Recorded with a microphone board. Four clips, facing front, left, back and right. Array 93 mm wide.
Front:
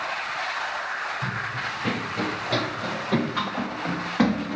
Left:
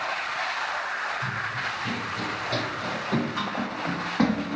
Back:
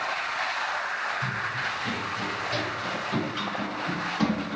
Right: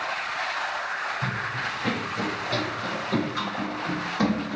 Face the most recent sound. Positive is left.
turn(degrees=35)